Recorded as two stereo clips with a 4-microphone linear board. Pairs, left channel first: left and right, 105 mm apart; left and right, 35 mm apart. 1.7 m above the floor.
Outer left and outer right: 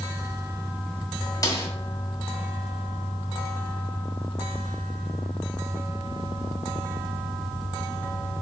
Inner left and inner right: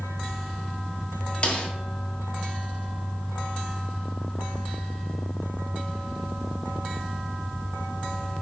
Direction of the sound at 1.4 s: 35° left (ahead or behind).